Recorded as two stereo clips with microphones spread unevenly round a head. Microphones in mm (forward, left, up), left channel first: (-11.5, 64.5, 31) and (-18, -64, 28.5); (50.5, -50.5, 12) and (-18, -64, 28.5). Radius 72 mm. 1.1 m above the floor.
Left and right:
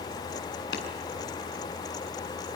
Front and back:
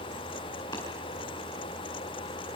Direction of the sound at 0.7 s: 85° left.